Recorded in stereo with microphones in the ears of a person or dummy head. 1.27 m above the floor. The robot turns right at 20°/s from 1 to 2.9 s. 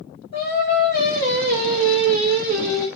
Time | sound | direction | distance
0.3 | singing | 130° left | 1.2 m